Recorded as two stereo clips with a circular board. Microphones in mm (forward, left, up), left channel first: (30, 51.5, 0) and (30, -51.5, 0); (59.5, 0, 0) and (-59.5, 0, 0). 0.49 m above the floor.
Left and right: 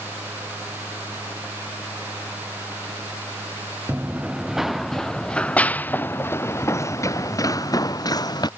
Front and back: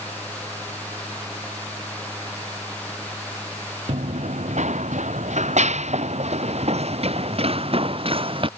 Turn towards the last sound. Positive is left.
turn(degrees=140)